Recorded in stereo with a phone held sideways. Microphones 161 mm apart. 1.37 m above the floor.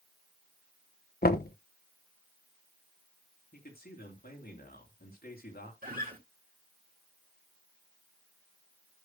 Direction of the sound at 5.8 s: 65° right (ahead or behind).